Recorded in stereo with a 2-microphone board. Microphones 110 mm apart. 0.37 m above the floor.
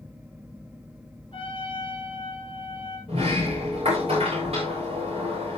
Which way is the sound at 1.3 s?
50° left (ahead or behind).